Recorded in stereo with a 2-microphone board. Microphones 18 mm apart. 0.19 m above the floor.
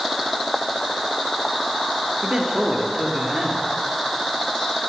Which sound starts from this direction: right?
A man speaking, at 2.2 s.